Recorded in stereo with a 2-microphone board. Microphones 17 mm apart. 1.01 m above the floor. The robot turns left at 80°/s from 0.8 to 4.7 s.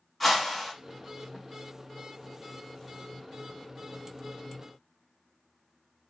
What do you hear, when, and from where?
0.2 s a whoosh: 5° right (ahead or behind), 2.5 m